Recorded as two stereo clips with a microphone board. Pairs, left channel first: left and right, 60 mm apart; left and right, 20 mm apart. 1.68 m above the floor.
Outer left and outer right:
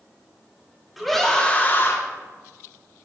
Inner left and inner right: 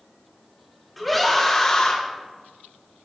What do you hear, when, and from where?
1.0 s a scream: centre (ahead or behind), 2.0 m; by 2.0 s 50° left (ahead or behind), 1.7 m